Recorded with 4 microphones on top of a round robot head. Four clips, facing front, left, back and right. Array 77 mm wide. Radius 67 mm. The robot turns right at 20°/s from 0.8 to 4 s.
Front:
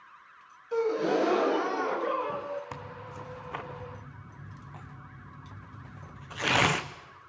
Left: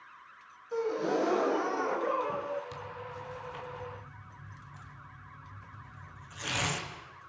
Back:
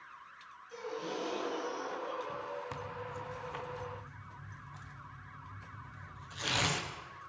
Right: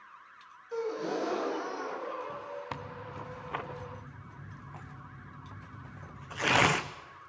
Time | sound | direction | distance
0.7 | a gasp | 10° left | 1.1 m
2.7 | tearing paper | 75° right | 1.1 m